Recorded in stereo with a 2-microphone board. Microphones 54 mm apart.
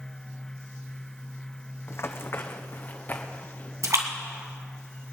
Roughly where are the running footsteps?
Left.